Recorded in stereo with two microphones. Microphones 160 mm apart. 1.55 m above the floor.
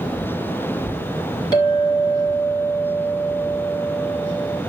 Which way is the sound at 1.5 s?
25° left (ahead or behind).